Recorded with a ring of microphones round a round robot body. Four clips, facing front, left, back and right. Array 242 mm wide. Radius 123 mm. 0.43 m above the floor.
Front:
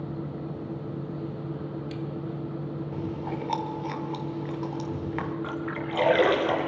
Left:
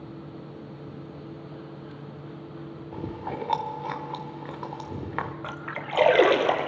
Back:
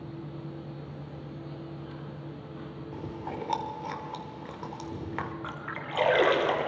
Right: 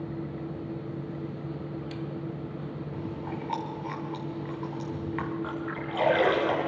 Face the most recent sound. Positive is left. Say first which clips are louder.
# right 2 dB, front 6 dB
turn(degrees=85)